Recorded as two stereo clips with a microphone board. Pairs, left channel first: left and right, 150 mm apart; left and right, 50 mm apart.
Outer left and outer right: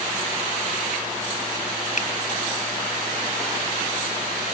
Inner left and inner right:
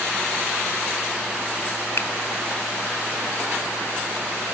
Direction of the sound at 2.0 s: 55° left (ahead or behind).